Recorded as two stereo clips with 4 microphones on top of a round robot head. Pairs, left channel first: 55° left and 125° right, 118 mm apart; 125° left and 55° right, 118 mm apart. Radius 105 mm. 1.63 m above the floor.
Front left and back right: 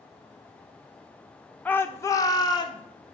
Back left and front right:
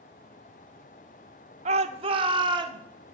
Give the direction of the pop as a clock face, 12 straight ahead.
No pop in this recording.